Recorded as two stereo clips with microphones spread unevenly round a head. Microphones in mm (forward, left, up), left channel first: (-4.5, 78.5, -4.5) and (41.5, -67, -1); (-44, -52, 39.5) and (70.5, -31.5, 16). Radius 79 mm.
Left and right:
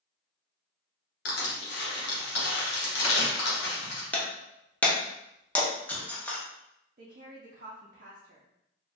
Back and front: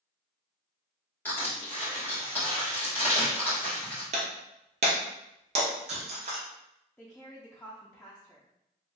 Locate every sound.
1.2 s crushing: 110° left, 1.0 m
4.1 s breaking glass: 30° left, 0.7 m
7.0 s a woman speaking: 95° right, 0.5 m